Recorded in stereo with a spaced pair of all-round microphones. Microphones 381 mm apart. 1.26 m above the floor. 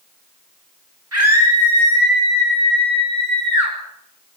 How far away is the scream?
About 10 m.